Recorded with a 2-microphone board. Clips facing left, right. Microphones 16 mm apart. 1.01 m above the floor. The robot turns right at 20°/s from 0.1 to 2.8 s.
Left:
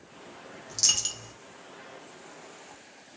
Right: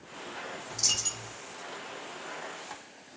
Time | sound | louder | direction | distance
0.7 | a dropped coin | left 3 dB | 45° left (ahead or behind) | 1.2 m